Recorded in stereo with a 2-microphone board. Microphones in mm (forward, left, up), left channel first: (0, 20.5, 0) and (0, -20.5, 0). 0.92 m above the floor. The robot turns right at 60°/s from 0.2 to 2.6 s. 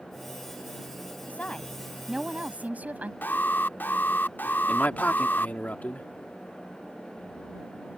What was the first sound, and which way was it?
A woman speaking, 140° left.